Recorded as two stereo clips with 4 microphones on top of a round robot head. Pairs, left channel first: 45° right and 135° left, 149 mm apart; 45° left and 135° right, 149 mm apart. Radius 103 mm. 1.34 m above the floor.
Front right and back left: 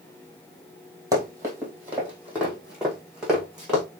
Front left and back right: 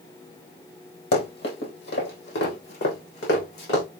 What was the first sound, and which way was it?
Running footsteps, 65° left.